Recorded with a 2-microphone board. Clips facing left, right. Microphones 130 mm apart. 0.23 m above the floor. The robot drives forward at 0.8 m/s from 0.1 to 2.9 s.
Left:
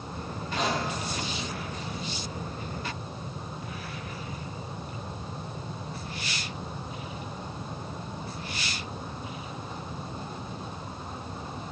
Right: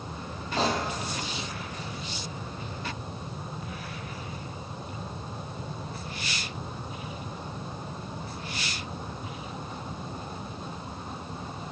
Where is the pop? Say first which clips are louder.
Right 2 dB; 35° right (ahead or behind), 1.6 m; by 0.8 s 40° right (ahead or behind), 1.5 m.